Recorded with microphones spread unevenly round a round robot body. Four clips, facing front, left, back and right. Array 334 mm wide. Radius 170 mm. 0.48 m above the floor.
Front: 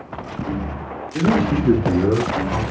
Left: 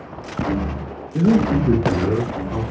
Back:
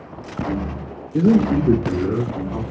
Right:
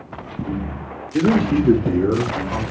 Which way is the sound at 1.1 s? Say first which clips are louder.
Even, back 3 dB; 170° right.